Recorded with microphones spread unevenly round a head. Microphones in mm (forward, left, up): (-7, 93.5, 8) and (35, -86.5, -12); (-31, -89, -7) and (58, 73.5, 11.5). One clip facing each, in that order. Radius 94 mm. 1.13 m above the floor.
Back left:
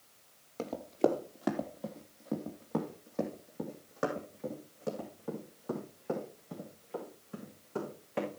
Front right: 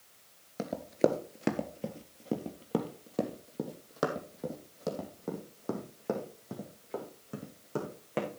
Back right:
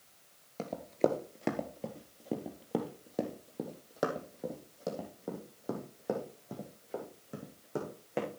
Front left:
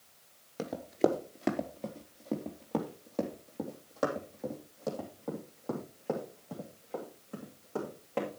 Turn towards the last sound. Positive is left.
turn(degrees=-45)